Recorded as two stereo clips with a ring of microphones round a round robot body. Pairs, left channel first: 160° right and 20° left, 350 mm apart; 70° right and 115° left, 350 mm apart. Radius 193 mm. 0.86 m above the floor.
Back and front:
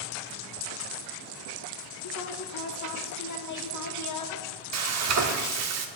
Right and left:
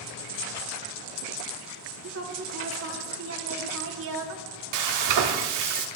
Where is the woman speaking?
165° left, 1.9 m.